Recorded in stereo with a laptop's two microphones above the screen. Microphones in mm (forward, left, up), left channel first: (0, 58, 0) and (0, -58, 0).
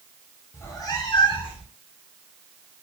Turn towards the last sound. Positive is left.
turn(degrees=50)  # may be behind; listen again after turning